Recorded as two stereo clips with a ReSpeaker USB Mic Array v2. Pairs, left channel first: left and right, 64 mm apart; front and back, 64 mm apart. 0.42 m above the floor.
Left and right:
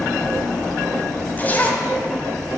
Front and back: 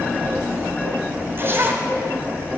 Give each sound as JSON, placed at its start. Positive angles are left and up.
{"t": 1.4, "sound": "a zipper", "azimuth_deg": 140, "distance_m": 0.8}